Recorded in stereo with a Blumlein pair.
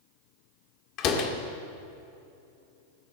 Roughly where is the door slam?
Ahead left.